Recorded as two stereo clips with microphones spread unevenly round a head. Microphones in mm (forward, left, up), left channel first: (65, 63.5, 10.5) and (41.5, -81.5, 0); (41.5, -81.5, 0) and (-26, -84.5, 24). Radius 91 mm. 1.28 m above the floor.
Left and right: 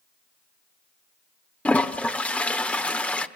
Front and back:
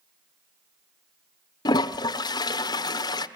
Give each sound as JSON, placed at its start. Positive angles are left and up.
{"t": 1.6, "sound": "a toilet flushing", "azimuth_deg": 5, "distance_m": 1.1}